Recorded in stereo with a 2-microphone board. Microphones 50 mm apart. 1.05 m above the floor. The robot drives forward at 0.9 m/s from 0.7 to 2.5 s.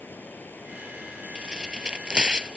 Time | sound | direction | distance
0.0 | running water | 40° left (ahead or behind) | ?
1.4 | tearing paper | 15° right (ahead or behind) | ?